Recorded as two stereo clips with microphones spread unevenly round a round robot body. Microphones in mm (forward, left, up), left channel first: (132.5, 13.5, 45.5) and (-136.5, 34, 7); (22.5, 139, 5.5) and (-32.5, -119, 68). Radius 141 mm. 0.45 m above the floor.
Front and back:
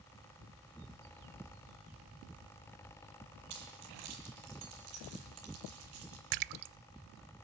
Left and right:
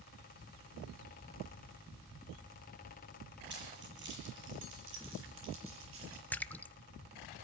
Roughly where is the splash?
Behind.